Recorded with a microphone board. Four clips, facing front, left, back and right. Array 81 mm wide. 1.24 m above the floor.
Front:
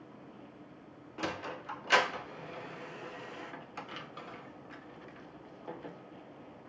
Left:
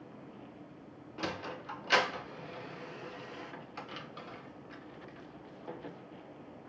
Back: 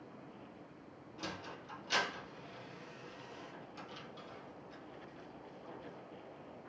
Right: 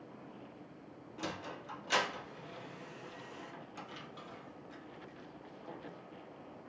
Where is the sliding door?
30° left, 1.0 m.